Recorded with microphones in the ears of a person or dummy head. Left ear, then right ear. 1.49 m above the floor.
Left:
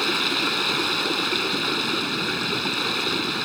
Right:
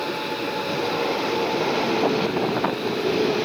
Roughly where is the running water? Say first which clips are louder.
Left 4 dB; left.